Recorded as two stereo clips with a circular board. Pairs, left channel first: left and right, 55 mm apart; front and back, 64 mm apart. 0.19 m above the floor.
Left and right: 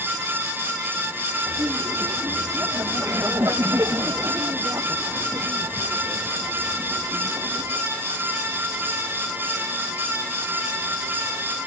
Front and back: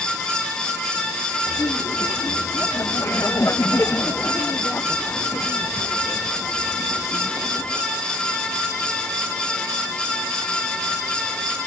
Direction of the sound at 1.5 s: 45° right.